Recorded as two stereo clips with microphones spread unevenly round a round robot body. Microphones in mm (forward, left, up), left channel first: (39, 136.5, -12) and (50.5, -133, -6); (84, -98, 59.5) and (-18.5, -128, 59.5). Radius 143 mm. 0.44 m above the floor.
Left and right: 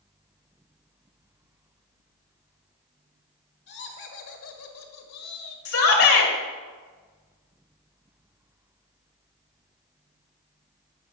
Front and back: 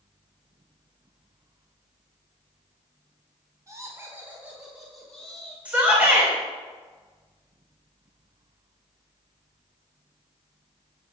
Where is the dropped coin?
I don't hear a dropped coin.